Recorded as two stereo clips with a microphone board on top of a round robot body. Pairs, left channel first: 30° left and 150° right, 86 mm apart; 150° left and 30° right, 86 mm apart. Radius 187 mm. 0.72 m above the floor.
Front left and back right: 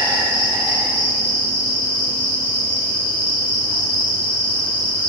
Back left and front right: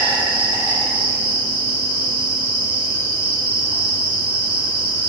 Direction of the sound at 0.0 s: Straight ahead.